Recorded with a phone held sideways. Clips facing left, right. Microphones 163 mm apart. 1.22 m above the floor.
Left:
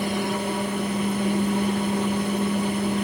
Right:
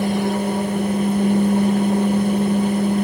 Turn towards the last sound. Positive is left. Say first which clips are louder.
# right 6 dB
turn(degrees=-45)  # may be behind; listen again after turning